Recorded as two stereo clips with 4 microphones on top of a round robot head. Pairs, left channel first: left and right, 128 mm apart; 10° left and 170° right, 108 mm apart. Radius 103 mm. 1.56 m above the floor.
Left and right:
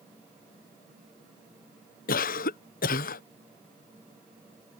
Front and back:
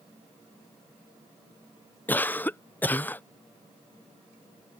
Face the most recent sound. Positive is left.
turn(degrees=85)